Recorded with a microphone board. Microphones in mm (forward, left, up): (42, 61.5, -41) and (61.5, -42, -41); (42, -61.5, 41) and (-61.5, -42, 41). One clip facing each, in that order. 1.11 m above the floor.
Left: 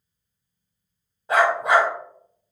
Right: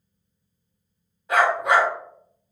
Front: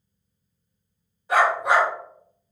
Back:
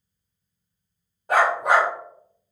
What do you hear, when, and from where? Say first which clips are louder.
1.3 s a dog barking: left 1 dB, back 1 dB; 150° left, 1.4 m